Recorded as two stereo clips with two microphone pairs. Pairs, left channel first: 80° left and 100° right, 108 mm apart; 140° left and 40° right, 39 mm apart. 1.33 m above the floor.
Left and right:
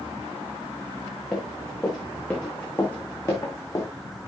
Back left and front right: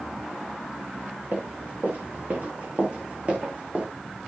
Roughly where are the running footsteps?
Ahead.